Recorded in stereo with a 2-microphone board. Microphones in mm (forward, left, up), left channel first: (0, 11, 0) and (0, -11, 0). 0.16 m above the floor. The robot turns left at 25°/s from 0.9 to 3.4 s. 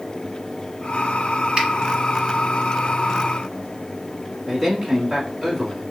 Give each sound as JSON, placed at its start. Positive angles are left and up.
{"t": 1.6, "sound": "a finger snap", "side_deg": -45, "distance_m": 1.7}
{"t": 4.5, "sound": "a man speaking", "side_deg": -35, "distance_m": 1.4}